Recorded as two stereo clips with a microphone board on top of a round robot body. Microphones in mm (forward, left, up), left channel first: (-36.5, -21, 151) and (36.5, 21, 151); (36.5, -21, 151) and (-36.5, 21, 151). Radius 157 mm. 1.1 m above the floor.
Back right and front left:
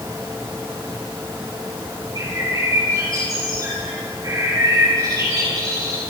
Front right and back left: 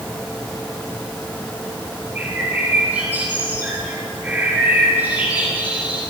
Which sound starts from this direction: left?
A bird, at 2.1 s.